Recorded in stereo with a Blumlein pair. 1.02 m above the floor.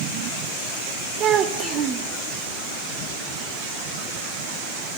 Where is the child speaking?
30° right, 1.6 m.